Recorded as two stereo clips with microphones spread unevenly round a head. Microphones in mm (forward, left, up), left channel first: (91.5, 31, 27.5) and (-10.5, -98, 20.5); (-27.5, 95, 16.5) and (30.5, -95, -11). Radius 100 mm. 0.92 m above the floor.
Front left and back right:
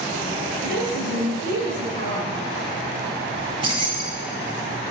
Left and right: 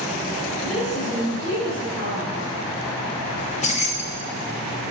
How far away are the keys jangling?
About 1.0 m.